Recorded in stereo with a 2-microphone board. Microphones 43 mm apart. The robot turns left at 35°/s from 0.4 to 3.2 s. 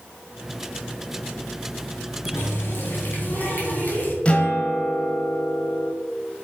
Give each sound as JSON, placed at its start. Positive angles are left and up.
{"t": 2.3, "sound": "a running tap", "azimuth_deg": 75, "distance_m": 2.5}
{"t": 4.2, "sound": "a guitar", "side_deg": 25, "distance_m": 1.2}